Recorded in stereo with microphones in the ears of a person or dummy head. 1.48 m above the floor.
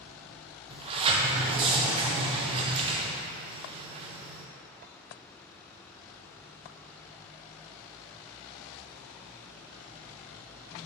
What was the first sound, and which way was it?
A sliding door, 30° right (ahead or behind).